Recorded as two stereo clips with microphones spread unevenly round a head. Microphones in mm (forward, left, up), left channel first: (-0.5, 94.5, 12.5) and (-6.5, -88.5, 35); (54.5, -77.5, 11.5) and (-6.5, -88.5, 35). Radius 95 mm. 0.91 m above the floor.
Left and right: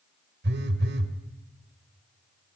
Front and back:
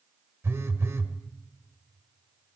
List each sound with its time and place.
0.4 s a phone buzzing: 125° right, 2.0 m